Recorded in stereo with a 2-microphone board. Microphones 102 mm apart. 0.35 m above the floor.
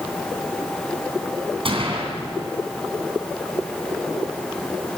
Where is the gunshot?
60° right (ahead or behind), 3 m.